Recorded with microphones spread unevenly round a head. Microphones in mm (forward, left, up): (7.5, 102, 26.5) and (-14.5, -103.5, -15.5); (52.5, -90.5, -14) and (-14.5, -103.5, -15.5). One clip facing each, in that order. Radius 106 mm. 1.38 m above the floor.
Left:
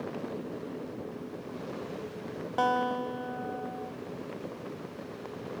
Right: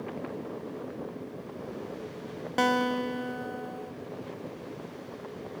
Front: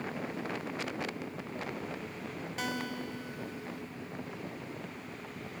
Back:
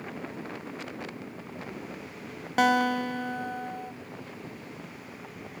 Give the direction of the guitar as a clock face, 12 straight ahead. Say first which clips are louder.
Right 3 dB, back 15 dB; 5 o'clock.